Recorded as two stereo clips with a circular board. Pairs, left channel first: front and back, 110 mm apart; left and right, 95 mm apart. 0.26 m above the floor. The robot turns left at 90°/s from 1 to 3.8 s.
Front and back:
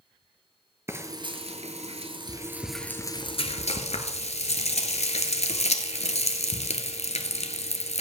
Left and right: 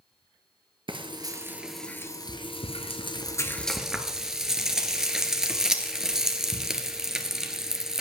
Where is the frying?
115° right, 1.1 m; by 8.0 s 5° right, 1.1 m.